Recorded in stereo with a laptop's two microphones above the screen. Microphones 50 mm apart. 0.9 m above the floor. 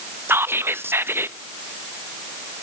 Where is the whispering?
55° right (ahead or behind), 0.5 m.